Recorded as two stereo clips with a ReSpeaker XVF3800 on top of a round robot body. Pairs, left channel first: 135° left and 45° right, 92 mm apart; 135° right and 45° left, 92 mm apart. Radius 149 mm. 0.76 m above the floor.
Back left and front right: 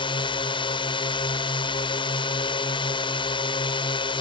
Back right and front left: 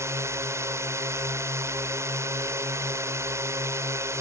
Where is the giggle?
I don't hear a giggle.